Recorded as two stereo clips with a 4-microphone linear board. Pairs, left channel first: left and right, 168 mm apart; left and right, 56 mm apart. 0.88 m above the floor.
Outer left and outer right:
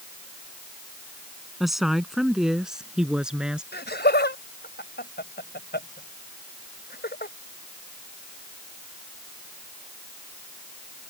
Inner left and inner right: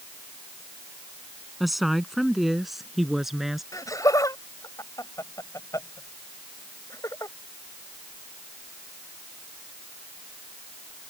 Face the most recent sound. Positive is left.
turn(degrees=85)